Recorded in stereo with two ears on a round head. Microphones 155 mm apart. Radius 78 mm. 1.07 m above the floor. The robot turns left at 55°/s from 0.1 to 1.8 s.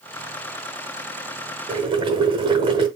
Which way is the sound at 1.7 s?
30° right (ahead or behind).